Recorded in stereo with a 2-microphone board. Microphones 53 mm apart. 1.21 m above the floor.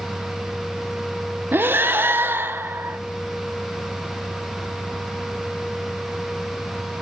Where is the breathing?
40° right (ahead or behind), 0.8 m.